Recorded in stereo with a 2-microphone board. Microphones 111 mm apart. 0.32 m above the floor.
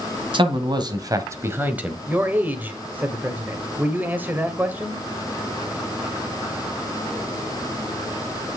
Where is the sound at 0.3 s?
50° right (ahead or behind), 1.9 m; by 2.0 s 10° right (ahead or behind), 1.3 m.